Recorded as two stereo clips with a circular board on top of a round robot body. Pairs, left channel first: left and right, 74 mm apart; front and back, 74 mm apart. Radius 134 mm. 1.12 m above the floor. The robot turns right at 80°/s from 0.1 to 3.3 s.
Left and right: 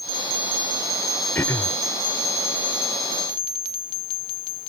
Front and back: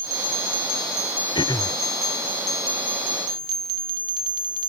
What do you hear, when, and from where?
1.4 s throat clearing: 25° left; by 1.8 s 55° left